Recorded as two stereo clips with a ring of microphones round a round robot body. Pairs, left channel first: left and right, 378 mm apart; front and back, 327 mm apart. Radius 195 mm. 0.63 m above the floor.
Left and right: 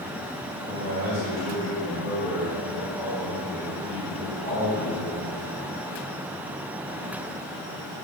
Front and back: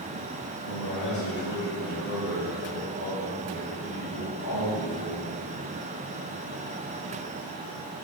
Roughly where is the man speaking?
Ahead right.